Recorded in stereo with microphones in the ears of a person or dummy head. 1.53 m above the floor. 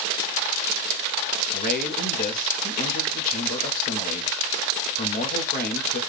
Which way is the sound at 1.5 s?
45° left (ahead or behind).